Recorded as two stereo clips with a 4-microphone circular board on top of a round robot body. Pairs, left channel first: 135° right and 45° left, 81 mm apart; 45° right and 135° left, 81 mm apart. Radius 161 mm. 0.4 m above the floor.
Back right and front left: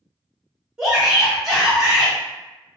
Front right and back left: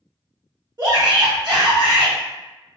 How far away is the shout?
About 1.0 m.